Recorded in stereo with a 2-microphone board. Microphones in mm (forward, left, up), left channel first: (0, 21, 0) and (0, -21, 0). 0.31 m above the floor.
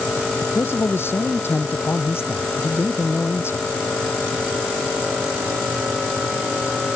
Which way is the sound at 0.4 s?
70° left (ahead or behind).